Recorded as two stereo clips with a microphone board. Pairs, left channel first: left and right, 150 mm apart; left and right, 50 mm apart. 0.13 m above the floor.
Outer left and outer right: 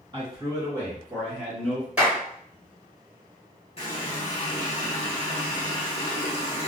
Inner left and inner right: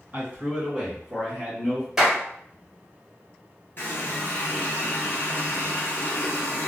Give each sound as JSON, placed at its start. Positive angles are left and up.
{"t": 0.1, "sound": "a man speaking", "side_deg": -35, "distance_m": 1.8}
{"t": 2.0, "sound": "a clap", "side_deg": -5, "distance_m": 0.9}
{"t": 3.8, "sound": "a running tap", "side_deg": 40, "distance_m": 1.4}